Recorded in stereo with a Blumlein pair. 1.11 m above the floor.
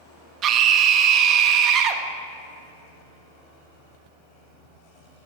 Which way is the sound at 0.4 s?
30° right.